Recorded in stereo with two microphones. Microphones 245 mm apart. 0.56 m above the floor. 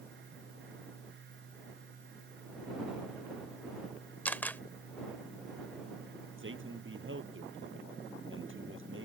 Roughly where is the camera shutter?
Centre.